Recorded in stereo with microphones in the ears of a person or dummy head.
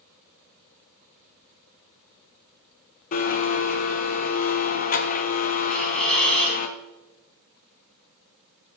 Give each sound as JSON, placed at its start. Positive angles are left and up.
{"t": 3.1, "sound": "a blender", "side_deg": 50, "distance_m": 0.8}
{"t": 5.7, "sound": "a hiss", "side_deg": 5, "distance_m": 4.0}